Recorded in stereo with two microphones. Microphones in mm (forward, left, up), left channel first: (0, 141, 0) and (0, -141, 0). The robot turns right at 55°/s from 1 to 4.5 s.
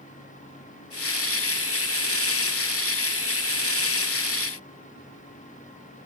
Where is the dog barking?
I don't hear a dog barking.